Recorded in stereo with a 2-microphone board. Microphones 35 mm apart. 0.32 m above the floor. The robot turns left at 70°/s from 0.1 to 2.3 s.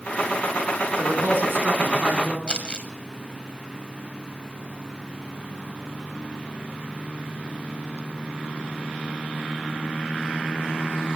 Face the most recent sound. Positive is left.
turn(degrees=30)  # may be behind; listen again after turning